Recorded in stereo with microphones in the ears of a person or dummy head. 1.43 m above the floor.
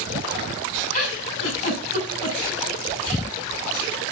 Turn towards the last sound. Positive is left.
turn(degrees=45)  # may be behind; listen again after turning